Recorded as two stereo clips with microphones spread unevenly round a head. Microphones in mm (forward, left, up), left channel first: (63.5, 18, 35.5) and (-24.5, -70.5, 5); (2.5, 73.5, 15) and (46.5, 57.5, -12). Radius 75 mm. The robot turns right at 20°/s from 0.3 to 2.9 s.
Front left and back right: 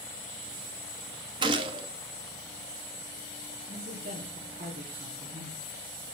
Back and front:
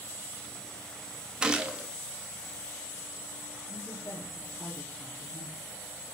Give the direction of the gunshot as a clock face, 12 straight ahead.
5 o'clock.